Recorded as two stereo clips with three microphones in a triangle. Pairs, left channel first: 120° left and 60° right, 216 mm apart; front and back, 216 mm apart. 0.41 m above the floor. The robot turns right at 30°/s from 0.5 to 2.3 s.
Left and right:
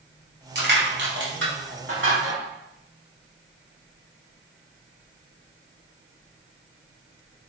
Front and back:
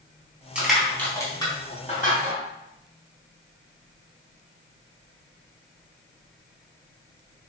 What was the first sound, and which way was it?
Crushing, 95° right.